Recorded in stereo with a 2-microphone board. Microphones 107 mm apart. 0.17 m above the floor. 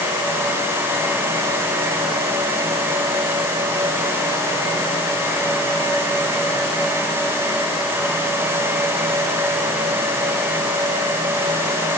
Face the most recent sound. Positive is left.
No sound to turn to.